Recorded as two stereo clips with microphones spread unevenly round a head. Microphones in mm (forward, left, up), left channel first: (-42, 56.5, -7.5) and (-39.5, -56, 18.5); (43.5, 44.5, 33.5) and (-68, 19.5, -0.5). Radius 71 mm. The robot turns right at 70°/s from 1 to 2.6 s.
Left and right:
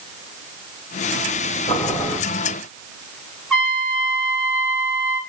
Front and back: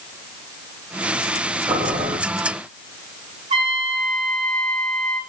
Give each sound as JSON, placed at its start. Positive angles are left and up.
{"t": 1.7, "sound": "boiling", "azimuth_deg": 140, "distance_m": 7.0}
{"t": 3.5, "sound": "a trumpet", "azimuth_deg": 180, "distance_m": 5.0}